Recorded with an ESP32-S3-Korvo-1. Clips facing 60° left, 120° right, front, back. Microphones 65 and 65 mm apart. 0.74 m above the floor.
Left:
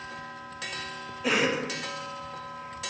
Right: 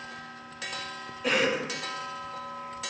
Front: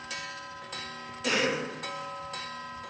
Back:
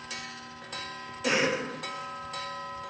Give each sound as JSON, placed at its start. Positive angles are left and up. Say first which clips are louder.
{"t": 1.2, "sound": "a cough", "louder": "even, back 1 dB", "azimuth_deg": 140, "distance_m": 0.5}